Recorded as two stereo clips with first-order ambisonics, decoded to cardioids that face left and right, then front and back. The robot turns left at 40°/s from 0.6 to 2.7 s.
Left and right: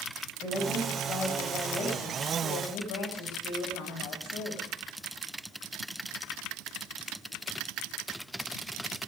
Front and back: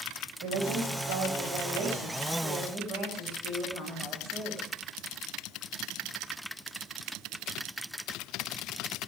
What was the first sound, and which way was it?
A woman speaking, 165° right.